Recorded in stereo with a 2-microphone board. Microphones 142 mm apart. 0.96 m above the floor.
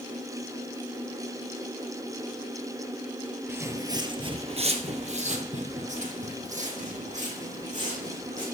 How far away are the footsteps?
About 1.1 m.